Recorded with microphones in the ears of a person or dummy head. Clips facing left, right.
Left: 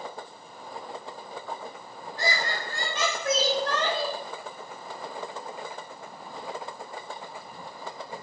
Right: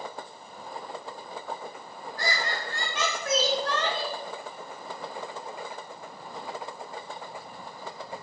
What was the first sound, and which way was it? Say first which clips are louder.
Laughter: left 2 dB; 25° left (ahead or behind).